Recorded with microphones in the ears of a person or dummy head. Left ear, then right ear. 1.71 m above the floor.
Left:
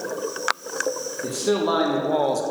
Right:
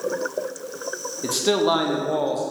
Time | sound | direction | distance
1.2 | a man speaking | 30° right (ahead or behind) | 0.7 m